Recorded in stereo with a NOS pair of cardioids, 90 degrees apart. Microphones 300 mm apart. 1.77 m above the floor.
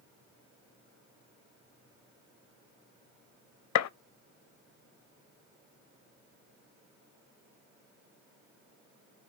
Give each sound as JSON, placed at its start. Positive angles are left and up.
{"t": 3.8, "sound": "a gunshot", "azimuth_deg": 65, "distance_m": 0.7}